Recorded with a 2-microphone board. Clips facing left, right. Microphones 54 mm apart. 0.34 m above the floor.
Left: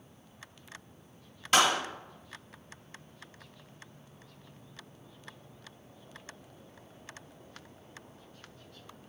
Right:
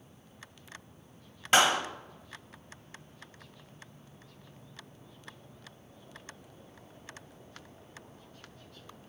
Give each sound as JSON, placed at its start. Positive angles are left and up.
{"t": 1.5, "sound": "a clap", "side_deg": -30, "distance_m": 1.3}